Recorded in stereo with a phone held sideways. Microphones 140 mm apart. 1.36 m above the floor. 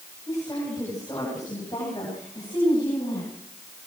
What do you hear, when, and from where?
0.3 s a woman speaking: 25° left (ahead or behind), 9 m; by 3.3 s 30° left (ahead or behind), 11 m